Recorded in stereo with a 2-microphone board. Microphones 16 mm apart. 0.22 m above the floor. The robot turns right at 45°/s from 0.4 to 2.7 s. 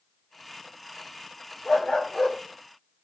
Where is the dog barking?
85° left, 5.5 m; by 2.4 s 120° left, 5.5 m.